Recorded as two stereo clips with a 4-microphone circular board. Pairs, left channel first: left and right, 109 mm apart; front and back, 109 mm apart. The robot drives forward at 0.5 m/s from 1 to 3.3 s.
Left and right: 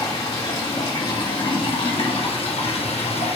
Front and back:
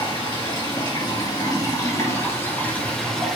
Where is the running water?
45° left, 1.9 m; by 3.4 s 85° left, 1.4 m.